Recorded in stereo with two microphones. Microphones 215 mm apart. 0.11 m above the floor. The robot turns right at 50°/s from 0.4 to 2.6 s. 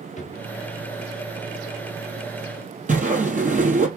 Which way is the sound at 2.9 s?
35° right (ahead or behind).